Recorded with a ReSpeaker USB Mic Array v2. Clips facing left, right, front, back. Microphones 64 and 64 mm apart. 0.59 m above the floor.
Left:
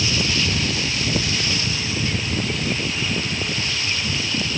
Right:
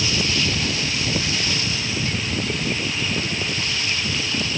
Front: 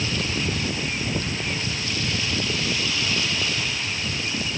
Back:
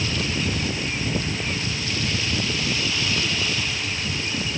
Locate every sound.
Only background noise.